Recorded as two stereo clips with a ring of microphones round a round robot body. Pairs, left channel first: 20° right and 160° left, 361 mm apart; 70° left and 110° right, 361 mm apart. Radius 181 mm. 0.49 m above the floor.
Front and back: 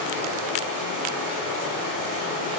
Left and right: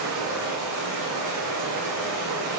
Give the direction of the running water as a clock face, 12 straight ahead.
5 o'clock.